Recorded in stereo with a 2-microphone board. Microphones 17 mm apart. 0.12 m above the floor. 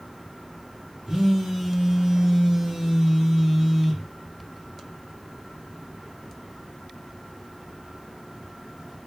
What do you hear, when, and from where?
1.1 s a phone buzzing: 30° right (ahead or behind), 1.8 m